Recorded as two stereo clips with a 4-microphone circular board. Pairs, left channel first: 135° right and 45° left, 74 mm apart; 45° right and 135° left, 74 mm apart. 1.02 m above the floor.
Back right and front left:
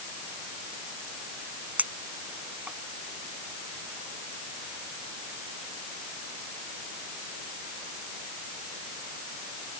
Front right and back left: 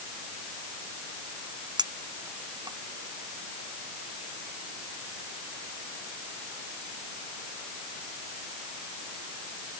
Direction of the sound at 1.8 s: 115° left.